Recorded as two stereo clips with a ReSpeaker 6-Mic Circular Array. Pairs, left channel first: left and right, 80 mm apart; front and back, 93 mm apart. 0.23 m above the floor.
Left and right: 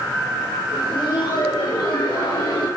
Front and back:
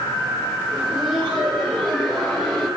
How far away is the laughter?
About 3 m.